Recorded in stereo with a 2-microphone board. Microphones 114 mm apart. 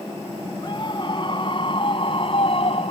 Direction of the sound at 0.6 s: 40° left (ahead or behind).